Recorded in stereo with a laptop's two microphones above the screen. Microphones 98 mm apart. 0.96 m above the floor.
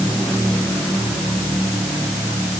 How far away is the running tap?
No running tap in this recording.